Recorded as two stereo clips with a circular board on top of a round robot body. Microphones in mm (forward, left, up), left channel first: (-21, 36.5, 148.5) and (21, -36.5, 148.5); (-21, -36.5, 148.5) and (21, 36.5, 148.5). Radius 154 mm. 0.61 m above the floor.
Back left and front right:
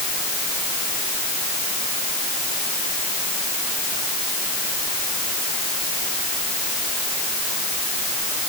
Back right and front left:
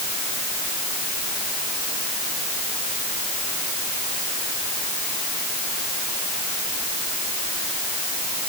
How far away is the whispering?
I don't hear whispering.